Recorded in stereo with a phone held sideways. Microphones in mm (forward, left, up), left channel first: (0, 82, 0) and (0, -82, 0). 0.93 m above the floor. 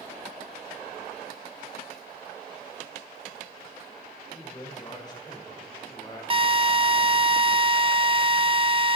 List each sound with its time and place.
4.3 s a man speaking: 25° left (ahead or behind), 4 m
6.3 s a drill: 35° right (ahead or behind), 1.0 m